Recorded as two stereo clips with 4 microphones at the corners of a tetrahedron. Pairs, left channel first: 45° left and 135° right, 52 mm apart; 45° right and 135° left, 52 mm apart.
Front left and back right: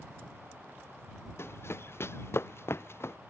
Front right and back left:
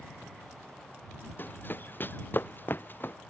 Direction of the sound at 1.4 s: 5° left.